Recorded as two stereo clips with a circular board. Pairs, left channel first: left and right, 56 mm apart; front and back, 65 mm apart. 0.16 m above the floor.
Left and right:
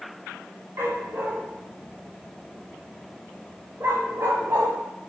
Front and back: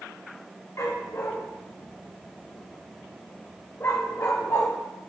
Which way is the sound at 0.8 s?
45° right.